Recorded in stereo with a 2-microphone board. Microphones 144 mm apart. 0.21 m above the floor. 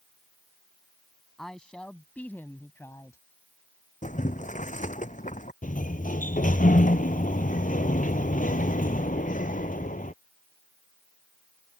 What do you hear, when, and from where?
1.4 s a woman speaking: 5° left (ahead or behind); by 3.2 s 25° left (ahead or behind)
4.0 s boiling: 60° left (ahead or behind)
5.6 s a sliding door: 70° left (ahead or behind)